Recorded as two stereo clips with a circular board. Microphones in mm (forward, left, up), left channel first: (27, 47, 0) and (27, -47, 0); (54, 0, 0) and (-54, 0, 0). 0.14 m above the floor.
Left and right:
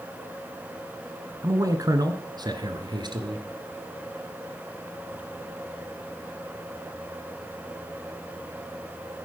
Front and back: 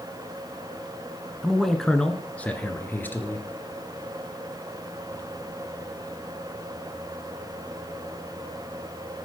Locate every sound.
1.4 s a man speaking: 95° right, 1.6 m; by 3.5 s 70° right, 2.5 m